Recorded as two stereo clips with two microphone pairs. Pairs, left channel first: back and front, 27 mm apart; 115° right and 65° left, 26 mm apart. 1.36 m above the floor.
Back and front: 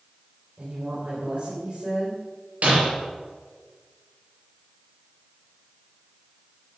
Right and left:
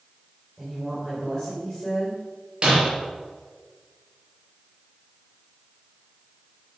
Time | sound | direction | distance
0.6 | a woman speaking | 20° right | 5 m
2.6 | breaking glass | 15° left | 5 m